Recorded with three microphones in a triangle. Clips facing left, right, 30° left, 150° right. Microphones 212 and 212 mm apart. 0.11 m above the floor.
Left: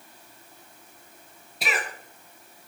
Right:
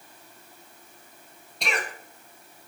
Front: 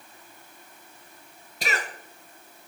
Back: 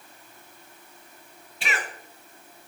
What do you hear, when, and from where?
1.6 s a cough: 5° left, 2 m